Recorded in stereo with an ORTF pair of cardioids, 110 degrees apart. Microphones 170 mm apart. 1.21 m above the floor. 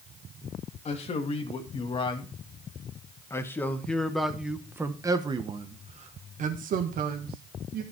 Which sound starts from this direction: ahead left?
A man speaking, at 0.8 s.